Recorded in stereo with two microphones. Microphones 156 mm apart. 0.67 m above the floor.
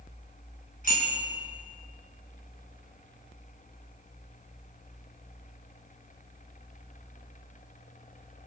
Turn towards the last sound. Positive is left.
turn(degrees=60)  # may be behind; listen again after turning